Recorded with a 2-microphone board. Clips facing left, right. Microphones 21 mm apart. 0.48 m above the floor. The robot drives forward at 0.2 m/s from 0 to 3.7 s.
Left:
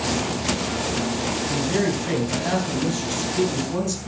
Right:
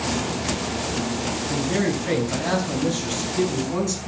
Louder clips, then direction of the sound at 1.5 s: Even; 25° right (ahead or behind).